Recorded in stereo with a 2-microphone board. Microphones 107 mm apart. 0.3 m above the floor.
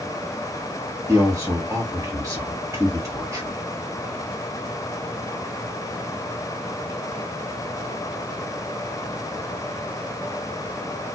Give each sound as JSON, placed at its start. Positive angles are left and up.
{"t": 1.1, "sound": "a man speaking", "side_deg": -30, "distance_m": 2.0}